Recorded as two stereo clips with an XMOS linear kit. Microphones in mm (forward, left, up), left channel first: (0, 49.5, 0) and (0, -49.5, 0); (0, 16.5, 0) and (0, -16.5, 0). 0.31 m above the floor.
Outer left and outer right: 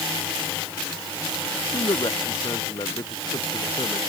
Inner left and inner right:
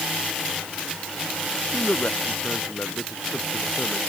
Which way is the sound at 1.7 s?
45° left (ahead or behind).